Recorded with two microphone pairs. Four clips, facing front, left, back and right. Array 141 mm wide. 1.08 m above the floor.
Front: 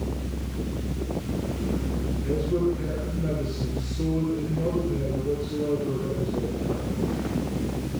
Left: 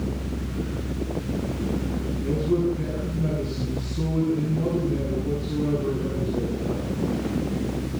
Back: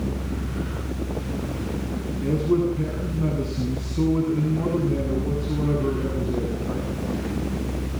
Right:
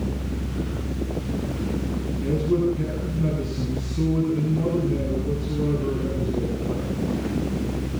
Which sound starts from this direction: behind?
A man speaking, at 2.2 s.